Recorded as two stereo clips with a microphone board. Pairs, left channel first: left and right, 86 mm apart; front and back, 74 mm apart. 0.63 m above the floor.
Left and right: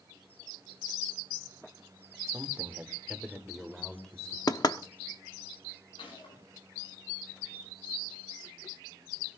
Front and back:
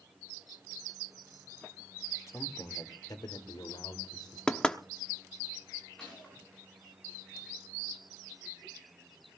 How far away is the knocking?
About 0.9 m.